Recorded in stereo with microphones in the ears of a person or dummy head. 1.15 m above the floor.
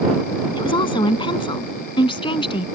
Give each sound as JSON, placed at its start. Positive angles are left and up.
{"t": 0.6, "sound": "a woman speaking", "side_deg": 30}